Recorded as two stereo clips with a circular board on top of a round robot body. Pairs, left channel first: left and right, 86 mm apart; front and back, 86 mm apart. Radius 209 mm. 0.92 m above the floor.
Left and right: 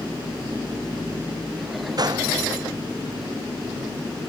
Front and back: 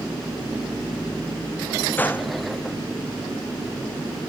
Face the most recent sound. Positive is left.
turn(degrees=-65)